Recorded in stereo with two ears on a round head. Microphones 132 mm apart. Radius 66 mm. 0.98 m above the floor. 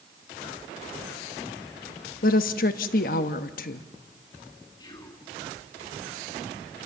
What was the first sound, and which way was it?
A woman speaking, 65° left (ahead or behind).